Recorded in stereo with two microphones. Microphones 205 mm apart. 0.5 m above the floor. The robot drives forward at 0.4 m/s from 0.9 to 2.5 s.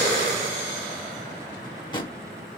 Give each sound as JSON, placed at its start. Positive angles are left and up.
{"t": 1.5, "sound": "a drawer", "side_deg": 20, "distance_m": 1.1}